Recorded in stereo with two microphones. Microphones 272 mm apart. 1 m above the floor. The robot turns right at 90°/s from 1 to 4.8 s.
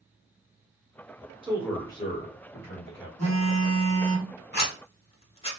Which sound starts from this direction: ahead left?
A phone buzzing, at 3.2 s.